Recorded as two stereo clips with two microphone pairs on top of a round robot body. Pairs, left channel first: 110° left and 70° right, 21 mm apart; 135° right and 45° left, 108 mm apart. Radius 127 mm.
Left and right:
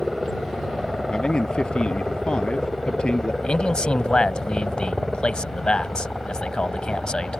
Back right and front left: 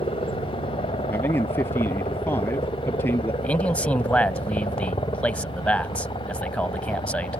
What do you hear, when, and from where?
0.0 s a helicopter: 165° right; by 7.4 s 175° right
1.1 s a man speaking: 150° left
3.4 s a man speaking: 145° left